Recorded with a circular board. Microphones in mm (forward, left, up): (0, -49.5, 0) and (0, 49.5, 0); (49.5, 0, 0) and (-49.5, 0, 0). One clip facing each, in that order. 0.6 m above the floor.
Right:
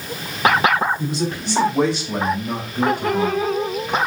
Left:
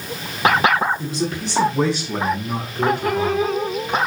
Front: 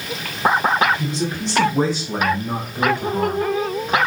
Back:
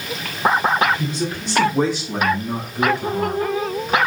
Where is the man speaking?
75° right, 5.5 m; by 4.0 s 35° right, 2 m.